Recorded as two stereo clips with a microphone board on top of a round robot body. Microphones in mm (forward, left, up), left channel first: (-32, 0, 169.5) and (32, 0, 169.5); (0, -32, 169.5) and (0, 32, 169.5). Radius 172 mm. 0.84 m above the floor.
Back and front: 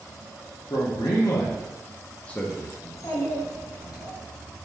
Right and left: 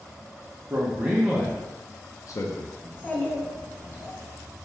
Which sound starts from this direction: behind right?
A child speaking, at 2.8 s.